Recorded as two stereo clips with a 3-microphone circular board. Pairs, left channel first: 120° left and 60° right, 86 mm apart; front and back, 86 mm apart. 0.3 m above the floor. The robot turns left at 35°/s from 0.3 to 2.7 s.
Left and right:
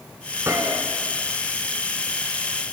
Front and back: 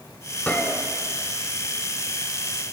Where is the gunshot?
55° right, 1.3 m; by 0.8 s 70° right, 1.3 m.